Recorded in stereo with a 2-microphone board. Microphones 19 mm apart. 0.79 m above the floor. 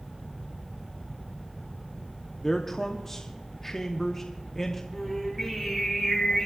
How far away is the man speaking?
About 1.1 m.